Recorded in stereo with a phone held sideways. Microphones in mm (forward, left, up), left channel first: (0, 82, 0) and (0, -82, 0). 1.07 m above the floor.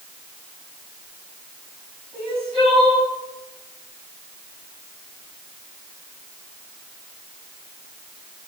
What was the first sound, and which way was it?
Crying, 40° right (ahead or behind).